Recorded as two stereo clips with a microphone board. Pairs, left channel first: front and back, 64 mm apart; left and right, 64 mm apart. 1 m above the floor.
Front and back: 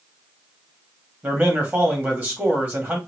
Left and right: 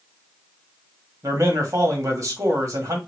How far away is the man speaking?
About 2 m.